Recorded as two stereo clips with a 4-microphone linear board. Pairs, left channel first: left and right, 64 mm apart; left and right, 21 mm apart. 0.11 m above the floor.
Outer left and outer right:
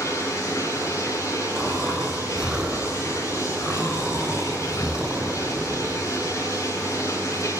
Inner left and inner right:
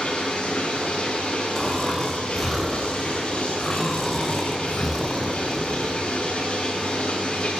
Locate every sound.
0.0 s running water: 45° left (ahead or behind), 10 m
1.6 s snoring: 10° right (ahead or behind), 6 m